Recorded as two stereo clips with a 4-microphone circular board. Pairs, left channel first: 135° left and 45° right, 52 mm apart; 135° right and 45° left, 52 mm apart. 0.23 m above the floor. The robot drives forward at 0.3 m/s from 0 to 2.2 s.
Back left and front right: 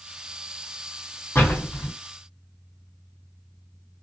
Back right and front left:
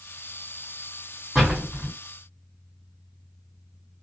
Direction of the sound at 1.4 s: 135° left.